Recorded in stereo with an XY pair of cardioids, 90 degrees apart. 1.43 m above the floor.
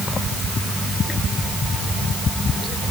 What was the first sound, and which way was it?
Only background noise.